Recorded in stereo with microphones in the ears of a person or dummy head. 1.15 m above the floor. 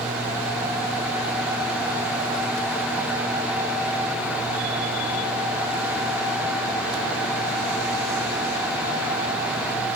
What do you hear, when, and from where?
Only background noise.